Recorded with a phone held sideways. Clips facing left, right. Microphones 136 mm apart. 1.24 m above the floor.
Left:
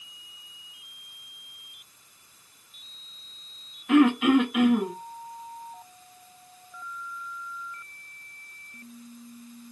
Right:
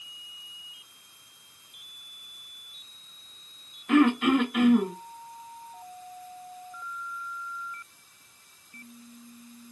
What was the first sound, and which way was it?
Throat clearing, 5° left (ahead or behind).